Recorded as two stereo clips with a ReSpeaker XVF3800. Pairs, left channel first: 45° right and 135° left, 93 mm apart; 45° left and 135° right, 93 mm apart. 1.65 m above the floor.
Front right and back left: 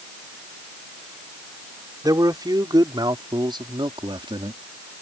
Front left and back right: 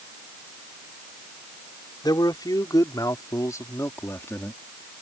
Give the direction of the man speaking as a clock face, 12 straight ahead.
9 o'clock.